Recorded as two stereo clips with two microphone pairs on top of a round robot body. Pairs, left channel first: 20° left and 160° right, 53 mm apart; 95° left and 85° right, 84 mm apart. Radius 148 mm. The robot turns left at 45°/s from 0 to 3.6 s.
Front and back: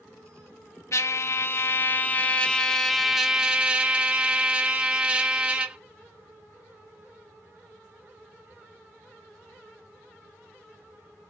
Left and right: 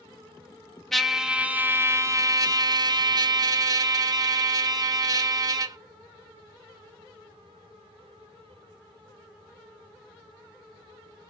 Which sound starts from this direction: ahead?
A trumpet, at 0.9 s.